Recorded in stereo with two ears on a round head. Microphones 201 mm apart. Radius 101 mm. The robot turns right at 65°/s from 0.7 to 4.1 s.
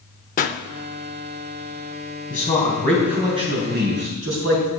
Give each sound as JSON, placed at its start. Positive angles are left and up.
{"t": 0.4, "sound": "a pop", "side_deg": 35, "distance_m": 0.5}
{"t": 2.3, "sound": "a man speaking", "azimuth_deg": 135, "distance_m": 3.5}